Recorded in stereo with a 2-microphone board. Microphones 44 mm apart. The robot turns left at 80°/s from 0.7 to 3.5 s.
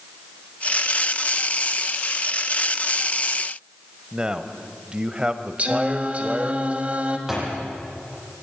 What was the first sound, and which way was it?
A man speaking, 20° right (ahead or behind).